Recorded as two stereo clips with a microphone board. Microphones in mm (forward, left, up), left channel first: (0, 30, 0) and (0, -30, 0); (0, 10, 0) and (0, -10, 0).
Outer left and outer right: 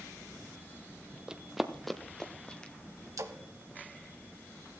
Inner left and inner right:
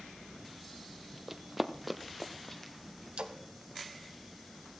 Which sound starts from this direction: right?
A splash, at 3.2 s.